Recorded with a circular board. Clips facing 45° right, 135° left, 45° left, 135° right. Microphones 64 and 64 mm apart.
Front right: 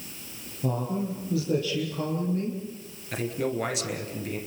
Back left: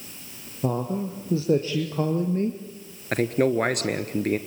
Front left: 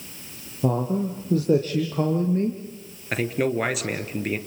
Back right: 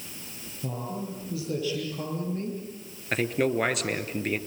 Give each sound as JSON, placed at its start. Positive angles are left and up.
{"t": 0.6, "sound": "a man speaking", "azimuth_deg": 75, "distance_m": 3.5}
{"t": 3.1, "sound": "a man speaking", "azimuth_deg": 130, "distance_m": 1.8}